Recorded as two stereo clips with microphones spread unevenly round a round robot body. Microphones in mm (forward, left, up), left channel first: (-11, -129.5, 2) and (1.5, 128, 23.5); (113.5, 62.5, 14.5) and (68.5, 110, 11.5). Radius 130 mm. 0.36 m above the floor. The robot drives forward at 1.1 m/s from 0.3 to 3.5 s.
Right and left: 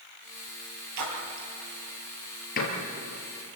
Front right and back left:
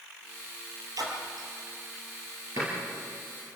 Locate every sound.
1.0 s a splash: 115° left, 4.5 m; by 1.5 s 120° left, 4.5 m
2.6 s a door slam: 150° right, 5 m